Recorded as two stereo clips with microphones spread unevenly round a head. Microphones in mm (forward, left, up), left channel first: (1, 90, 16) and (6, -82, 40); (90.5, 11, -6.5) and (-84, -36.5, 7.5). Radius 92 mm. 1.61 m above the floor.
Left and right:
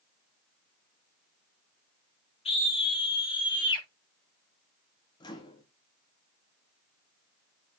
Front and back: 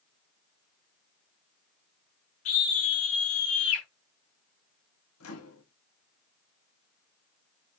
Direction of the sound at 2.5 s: 35° left.